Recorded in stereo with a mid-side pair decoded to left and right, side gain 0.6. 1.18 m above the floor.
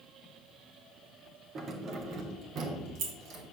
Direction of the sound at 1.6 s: 40° right.